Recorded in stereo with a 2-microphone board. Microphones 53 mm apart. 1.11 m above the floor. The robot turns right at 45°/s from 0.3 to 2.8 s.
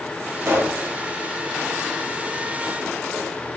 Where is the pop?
55° right (ahead or behind), 1.2 m.